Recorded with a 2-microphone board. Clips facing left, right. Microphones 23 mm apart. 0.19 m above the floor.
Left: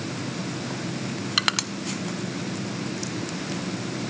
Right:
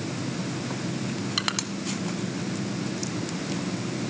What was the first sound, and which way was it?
Crushing, 20° left (ahead or behind).